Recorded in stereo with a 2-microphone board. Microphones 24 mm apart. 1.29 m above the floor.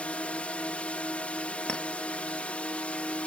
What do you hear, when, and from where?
0.0 s a drone: 70° left (ahead or behind)
1.7 s a clink: 45° left (ahead or behind)